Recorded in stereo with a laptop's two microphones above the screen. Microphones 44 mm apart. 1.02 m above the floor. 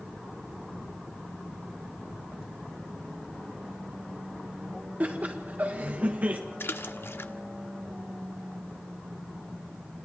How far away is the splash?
About 1.1 m.